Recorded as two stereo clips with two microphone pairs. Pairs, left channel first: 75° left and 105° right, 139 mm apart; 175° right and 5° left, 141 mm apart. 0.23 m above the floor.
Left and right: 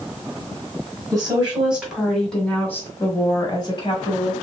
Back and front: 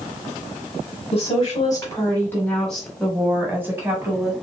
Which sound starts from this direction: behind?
A woman speaking, at 1.1 s.